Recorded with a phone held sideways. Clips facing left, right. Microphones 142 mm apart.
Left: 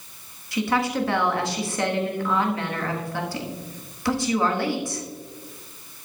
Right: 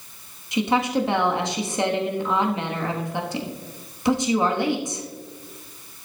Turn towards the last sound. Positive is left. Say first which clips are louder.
# right 2 dB
turn(degrees=-20)  # may be behind; listen again after turning